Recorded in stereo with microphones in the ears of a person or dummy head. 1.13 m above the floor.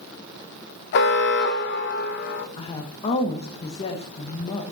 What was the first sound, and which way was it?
An alarm, 50° left (ahead or behind).